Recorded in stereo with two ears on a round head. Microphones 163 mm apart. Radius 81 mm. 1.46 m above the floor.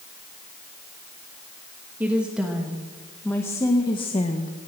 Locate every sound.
2.0 s a woman speaking: 10° right (ahead or behind), 2.5 m; by 4.6 s 45° left (ahead or behind), 1.5 m